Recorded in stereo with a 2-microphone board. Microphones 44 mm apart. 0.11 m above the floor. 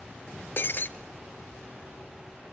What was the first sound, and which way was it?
Breaking glass, 50° left (ahead or behind).